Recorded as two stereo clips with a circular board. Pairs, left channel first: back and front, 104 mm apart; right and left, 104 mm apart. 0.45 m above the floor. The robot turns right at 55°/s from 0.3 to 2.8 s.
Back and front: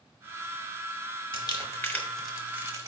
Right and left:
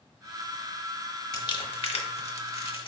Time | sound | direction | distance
1.3 | crumpling | 140° right | 0.7 m